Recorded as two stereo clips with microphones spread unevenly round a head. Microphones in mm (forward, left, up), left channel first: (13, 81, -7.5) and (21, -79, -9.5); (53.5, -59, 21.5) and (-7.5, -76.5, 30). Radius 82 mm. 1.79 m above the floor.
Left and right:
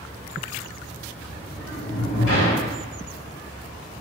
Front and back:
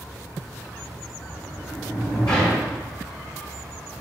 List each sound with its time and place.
1.3 s a sliding door: 90° left, 5 m